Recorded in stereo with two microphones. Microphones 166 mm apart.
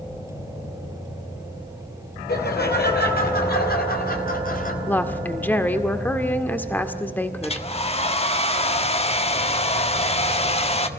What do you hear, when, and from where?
2.3 s laughter: 75° left (ahead or behind), 5 m; by 4.8 s 55° left (ahead or behind), 3.5 m
4.9 s a woman speaking: 10° left (ahead or behind), 1.9 m
7.4 s a hair dryer: 35° left (ahead or behind), 1.4 m